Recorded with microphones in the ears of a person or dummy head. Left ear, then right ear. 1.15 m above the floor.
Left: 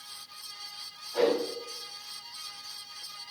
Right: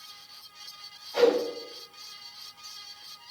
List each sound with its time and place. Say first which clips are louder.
1.1 s a whoosh: right 4 dB; 30° right (ahead or behind), 5.5 m